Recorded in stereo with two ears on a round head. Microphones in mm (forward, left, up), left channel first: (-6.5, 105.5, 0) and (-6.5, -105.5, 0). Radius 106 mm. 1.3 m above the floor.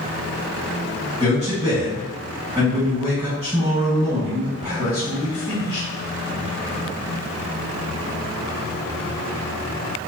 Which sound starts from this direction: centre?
A man speaking, at 1.2 s.